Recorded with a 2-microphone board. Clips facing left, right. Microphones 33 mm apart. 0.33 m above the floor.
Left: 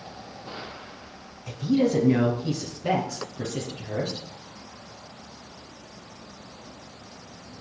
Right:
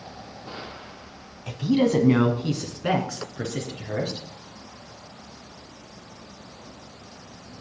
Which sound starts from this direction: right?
A woman speaking, at 1.5 s.